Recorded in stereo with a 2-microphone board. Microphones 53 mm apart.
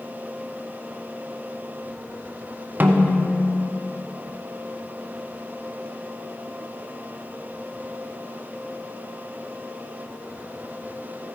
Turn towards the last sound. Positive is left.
turn(degrees=-35)  # may be behind; listen again after turning